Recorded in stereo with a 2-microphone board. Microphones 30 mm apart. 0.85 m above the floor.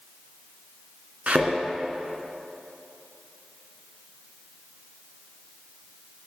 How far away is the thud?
About 2.5 m.